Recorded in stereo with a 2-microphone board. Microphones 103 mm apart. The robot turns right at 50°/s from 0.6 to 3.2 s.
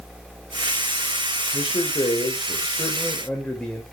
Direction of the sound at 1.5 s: 90° left.